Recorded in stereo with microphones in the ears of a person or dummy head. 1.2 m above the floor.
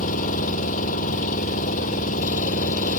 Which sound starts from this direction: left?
An engine running, at 0.0 s.